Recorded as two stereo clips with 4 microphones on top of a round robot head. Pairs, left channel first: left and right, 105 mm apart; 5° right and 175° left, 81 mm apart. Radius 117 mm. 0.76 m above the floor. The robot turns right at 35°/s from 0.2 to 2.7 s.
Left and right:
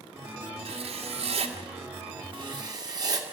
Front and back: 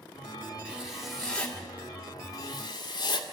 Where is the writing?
110° right, 1.9 m; by 3.4 s 40° right, 1.9 m.